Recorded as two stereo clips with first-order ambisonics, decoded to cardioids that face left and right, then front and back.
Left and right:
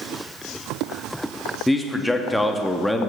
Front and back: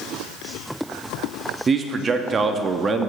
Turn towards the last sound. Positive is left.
turn(degrees=170)